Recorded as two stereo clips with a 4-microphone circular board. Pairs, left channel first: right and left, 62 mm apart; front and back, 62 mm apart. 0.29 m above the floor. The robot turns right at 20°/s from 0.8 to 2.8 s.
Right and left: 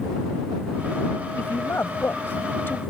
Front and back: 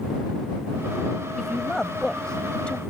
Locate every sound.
1.4 s a woman speaking: 90° right; by 2.8 s 60° right